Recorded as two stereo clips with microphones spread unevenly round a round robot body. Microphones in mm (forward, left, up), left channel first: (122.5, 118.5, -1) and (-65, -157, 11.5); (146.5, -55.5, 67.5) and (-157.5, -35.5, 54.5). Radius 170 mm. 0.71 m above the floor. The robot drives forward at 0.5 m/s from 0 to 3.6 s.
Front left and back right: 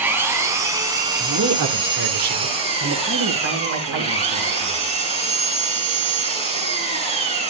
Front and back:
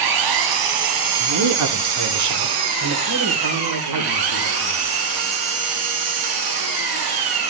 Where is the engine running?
150° left, 2.5 m; by 7.5 s 165° left, 4 m.